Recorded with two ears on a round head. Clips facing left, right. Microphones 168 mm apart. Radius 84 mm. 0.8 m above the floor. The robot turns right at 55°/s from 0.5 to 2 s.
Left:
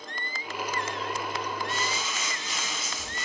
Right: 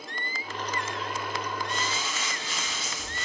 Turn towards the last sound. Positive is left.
turn(degrees=20)  # may be behind; listen again after turning